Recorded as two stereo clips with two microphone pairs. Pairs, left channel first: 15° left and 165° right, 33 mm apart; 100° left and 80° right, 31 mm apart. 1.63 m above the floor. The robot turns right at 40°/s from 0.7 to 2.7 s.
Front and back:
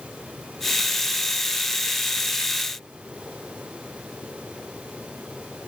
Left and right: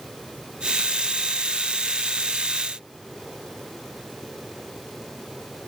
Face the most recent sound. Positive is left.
No sound to turn to.